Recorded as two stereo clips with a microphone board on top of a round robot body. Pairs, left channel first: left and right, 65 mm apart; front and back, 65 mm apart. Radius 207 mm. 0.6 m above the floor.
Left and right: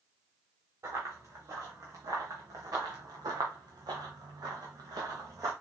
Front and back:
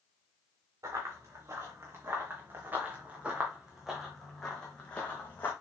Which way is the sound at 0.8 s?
140° right.